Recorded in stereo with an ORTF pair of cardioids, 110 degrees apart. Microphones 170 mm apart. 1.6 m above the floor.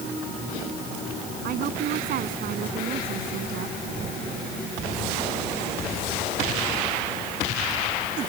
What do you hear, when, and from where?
1.4 s a woman speaking: 60° right